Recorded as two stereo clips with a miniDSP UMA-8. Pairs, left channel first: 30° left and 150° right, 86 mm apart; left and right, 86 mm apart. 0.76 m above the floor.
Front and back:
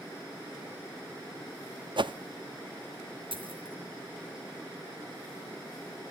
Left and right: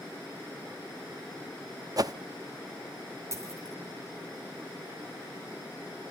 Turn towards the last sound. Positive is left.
turn(degrees=-145)